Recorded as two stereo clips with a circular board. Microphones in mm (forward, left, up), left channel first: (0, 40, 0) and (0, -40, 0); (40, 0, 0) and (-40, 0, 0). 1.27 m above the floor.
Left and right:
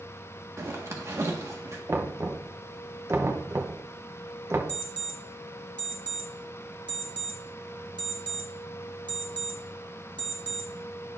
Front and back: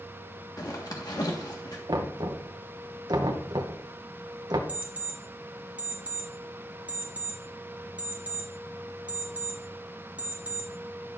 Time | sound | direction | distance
0.6 | a zipper | 35° right | 1.5 m
1.9 | knocking | 145° right | 0.9 m
4.7 | an alarm clock | 105° right | 1.5 m